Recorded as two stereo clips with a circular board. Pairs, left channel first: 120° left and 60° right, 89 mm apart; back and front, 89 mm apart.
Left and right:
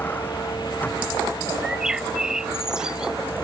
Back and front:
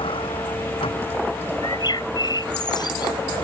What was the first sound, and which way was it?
A vehicle, 170° right.